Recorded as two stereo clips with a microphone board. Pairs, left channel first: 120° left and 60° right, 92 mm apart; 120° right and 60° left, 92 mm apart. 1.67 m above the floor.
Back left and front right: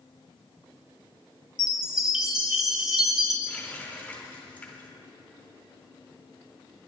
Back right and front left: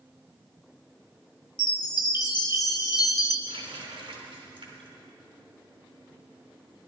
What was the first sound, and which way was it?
A chime, 140° right.